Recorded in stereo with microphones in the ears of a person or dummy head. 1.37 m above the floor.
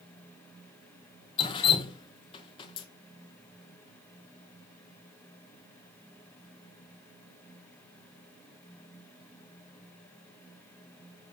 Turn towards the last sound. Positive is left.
turn(degrees=30)  # may be behind; listen again after turning